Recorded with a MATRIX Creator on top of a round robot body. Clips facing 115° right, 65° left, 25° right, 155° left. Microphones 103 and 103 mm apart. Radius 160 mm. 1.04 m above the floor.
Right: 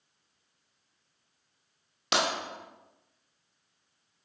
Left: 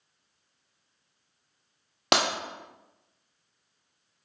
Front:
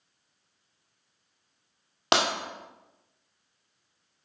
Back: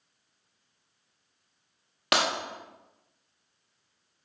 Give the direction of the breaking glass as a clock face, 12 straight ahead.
11 o'clock.